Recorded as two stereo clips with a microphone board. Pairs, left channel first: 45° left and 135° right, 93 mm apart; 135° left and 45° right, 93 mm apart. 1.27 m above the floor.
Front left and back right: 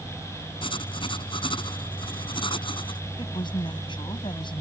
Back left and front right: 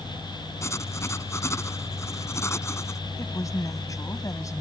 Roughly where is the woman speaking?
Left.